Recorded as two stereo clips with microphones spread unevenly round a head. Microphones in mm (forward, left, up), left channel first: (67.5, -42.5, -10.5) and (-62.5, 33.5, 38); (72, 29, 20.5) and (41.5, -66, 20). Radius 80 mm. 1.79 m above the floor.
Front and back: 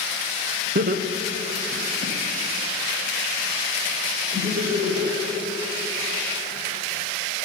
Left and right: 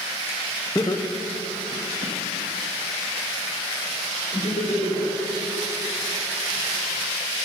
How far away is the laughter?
About 0.8 m.